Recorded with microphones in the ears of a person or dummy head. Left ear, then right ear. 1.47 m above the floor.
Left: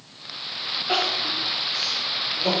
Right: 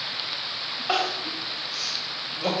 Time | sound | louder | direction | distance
0.9 | crying | left 3 dB | 40° right (ahead or behind) | 2 m